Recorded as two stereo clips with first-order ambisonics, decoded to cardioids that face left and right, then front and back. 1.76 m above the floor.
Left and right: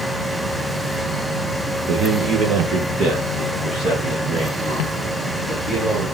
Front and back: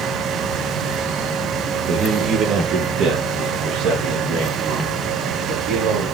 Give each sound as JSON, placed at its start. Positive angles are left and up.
{"t": 1.9, "sound": "a man speaking", "azimuth_deg": -125, "distance_m": 1.3}